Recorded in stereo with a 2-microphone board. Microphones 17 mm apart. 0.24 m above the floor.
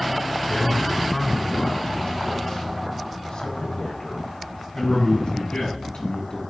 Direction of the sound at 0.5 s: 35° left (ahead or behind).